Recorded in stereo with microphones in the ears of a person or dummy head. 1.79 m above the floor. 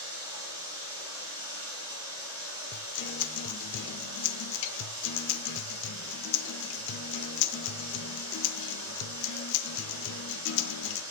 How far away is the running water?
About 7.5 m.